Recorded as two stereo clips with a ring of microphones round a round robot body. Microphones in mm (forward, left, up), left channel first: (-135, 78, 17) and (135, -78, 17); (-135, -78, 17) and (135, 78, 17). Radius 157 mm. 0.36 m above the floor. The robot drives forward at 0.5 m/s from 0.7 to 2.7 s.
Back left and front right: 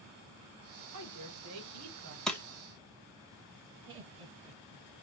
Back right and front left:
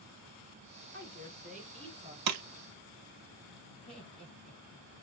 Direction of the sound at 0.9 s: 25° right.